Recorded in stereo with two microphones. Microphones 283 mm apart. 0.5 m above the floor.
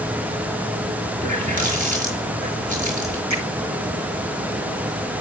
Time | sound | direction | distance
1.2 | a running tap | 25° right (ahead or behind) | 5.5 m
3.3 | a finger snap | 70° right (ahead or behind) | 6.5 m